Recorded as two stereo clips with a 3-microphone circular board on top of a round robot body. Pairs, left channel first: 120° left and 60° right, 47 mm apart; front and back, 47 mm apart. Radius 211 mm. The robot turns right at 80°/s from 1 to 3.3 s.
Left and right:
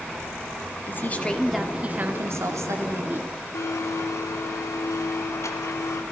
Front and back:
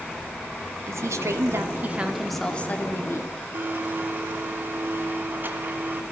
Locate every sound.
0.9 s a woman speaking: 165° left, 2.5 m; by 3.3 s 10° right, 2.5 m
3.5 s a blender: 135° left, 2.5 m